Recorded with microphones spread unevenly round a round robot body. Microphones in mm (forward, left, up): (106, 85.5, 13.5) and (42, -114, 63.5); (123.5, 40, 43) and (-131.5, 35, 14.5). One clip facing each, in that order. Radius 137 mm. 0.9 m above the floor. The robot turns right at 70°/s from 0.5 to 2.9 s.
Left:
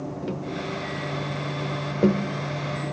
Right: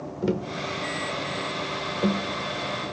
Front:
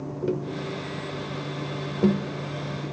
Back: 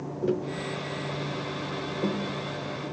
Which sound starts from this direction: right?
Tapping, at 0.2 s.